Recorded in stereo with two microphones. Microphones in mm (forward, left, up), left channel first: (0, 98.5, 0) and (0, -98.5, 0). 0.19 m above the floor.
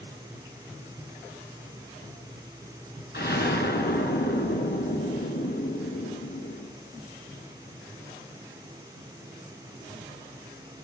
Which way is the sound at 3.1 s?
60° left (ahead or behind).